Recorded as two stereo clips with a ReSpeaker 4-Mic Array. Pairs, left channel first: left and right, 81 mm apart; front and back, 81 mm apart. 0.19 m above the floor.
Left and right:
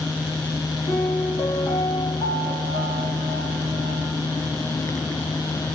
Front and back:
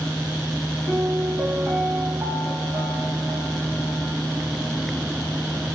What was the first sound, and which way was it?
A piano, 110° left.